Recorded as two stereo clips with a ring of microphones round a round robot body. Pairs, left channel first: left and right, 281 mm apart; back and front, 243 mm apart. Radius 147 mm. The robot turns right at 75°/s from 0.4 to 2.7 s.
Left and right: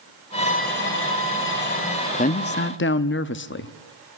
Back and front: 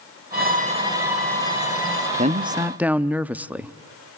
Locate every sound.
0.3 s a violin: 30° left, 1.5 m; by 2.1 s 160° left, 1.5 m
2.2 s a man speaking: 40° left, 0.7 m; by 3.8 s 80° left, 0.7 m